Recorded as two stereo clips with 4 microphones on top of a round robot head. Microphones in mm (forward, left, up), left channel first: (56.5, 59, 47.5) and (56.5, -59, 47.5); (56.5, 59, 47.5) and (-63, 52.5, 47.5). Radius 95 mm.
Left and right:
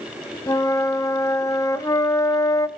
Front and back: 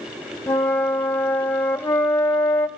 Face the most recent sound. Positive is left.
turn(degrees=60)